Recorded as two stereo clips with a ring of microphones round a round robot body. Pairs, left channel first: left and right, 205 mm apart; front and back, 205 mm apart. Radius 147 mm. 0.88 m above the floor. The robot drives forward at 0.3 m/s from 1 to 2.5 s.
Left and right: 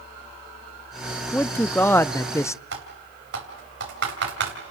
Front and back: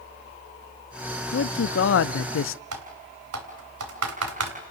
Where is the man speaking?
10° left, 1.2 m; by 2.6 s 15° left, 0.8 m.